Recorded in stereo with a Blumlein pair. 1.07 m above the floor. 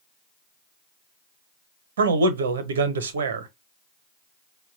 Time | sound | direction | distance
2.0 | a man speaking | 65° right | 0.7 m